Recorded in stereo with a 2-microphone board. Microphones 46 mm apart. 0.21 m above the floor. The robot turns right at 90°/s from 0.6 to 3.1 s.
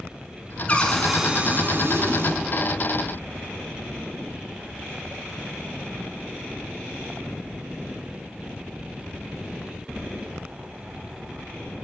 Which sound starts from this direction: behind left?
A cupboard door, at 0.7 s.